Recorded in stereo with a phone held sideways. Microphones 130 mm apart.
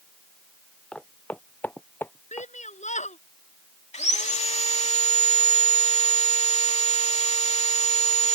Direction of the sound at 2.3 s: 65° left (ahead or behind).